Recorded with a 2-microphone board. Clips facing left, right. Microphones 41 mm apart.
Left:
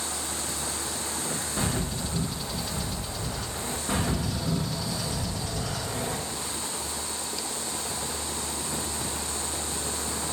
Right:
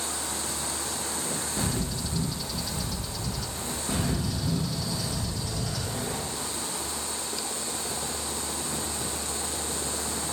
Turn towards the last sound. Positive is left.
turn(degrees=70)  # may be behind; listen again after turning